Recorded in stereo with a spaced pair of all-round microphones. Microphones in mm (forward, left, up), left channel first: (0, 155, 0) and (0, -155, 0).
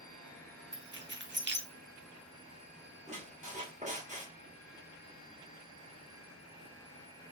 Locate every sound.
0.7 s keys jangling: 35° right (ahead or behind), 0.9 m
3.1 s a squeak: 25° right (ahead or behind), 1.4 m